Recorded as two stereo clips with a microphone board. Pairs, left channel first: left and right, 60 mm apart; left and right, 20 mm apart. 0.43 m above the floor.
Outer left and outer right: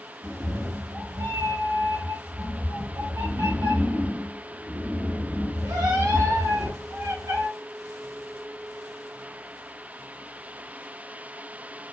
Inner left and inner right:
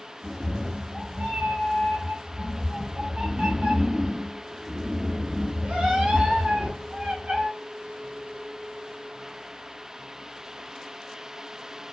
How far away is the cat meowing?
About 0.9 m.